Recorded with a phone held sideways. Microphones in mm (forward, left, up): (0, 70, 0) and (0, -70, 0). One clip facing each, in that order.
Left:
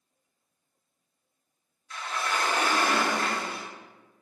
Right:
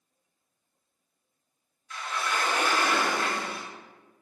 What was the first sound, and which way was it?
A sliding door, 35° left (ahead or behind).